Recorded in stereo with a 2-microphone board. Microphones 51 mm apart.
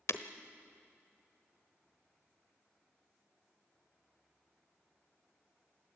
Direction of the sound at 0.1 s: 65° left (ahead or behind).